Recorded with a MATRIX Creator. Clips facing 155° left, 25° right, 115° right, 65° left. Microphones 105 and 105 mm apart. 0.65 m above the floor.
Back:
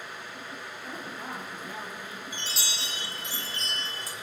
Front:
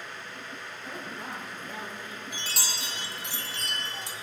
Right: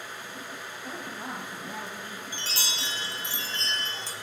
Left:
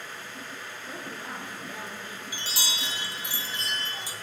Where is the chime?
10° right, 1.7 m.